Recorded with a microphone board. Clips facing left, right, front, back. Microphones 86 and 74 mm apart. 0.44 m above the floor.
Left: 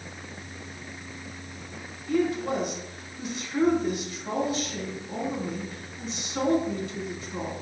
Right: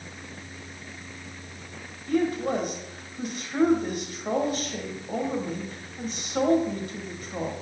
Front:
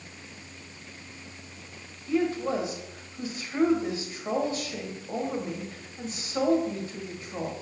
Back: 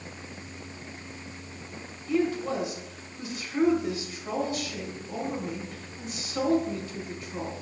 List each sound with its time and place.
2.1 s a woman speaking: 55° right, 1.6 m